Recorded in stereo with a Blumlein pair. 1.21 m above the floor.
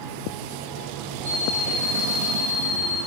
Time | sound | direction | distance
1.2 | an alarm clock | 10° right | 2.0 m